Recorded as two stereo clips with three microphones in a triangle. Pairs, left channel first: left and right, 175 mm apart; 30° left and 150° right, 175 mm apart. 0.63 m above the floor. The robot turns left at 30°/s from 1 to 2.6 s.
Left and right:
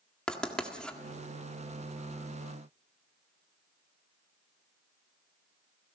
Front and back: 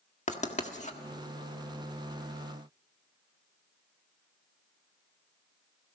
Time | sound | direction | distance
0.3 | writing | 5° left | 1.6 m